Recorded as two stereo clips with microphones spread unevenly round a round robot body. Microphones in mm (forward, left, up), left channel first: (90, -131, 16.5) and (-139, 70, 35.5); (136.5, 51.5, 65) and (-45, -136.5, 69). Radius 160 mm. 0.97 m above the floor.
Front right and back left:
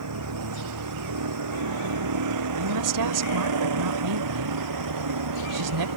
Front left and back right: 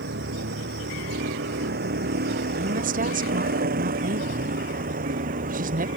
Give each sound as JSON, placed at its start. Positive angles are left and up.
{"t": 0.0, "sound": "a vehicle", "azimuth_deg": 170}
{"t": 2.6, "sound": "a woman speaking", "azimuth_deg": 165}